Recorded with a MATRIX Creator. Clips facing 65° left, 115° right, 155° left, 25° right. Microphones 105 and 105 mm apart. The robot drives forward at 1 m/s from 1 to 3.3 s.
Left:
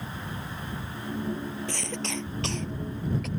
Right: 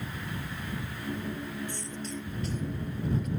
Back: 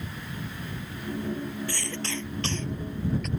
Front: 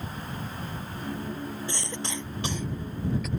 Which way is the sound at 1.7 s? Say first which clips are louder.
Left 4 dB, back 1 dB; 45° left.